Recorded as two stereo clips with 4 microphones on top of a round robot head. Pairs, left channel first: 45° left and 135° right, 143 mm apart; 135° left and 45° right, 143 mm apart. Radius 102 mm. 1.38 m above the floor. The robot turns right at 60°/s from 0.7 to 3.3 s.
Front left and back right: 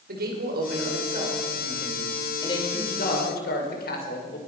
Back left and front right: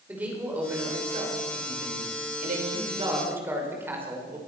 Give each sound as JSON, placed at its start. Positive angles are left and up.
{"t": 0.1, "sound": "a man speaking", "azimuth_deg": -125, "distance_m": 6.0}